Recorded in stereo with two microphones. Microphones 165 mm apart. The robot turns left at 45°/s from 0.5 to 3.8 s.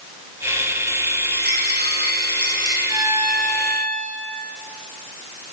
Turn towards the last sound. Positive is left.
turn(degrees=165)